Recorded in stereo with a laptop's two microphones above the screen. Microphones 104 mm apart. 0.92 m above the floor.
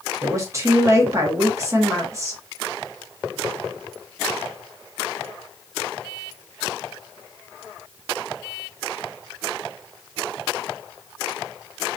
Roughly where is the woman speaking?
Right.